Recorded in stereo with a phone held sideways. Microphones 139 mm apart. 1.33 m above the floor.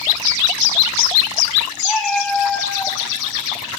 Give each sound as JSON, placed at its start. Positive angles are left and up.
{"t": 1.8, "sound": "a cat meowing", "side_deg": 5, "distance_m": 4.5}